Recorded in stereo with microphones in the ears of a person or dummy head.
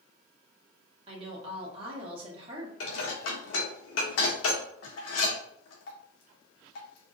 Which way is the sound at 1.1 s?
30° right (ahead or behind).